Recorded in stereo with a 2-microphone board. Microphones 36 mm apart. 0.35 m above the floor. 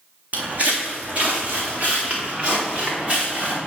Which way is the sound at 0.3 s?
40° right (ahead or behind).